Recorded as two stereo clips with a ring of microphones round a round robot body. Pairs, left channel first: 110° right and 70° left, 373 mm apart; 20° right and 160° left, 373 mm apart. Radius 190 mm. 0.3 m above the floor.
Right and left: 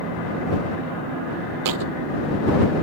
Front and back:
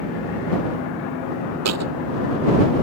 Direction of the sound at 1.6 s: 105° left.